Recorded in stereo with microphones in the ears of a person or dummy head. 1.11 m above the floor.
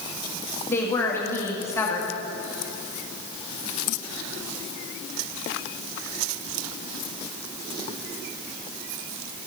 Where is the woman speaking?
15° left (ahead or behind), 2 m.